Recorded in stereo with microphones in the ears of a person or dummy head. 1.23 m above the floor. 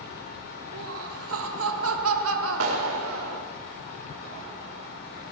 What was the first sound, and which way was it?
Laughter, 80° right.